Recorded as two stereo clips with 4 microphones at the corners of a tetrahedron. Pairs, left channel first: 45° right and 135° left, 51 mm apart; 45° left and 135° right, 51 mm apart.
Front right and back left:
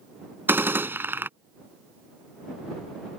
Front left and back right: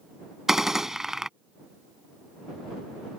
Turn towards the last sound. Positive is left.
turn(degrees=145)